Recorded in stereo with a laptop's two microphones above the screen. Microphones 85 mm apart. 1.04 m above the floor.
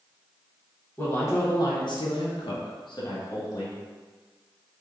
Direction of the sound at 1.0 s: 25° left (ahead or behind).